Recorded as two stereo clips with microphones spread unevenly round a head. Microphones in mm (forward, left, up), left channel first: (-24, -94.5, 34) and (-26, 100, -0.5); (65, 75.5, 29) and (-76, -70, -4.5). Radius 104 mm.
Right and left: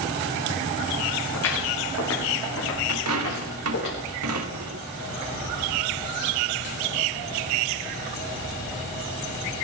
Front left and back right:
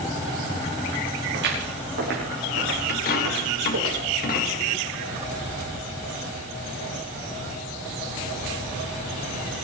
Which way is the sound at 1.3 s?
90° right.